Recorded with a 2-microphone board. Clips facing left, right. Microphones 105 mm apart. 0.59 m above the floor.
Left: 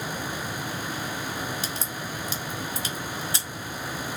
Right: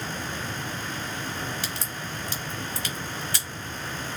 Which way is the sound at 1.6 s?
25° left (ahead or behind).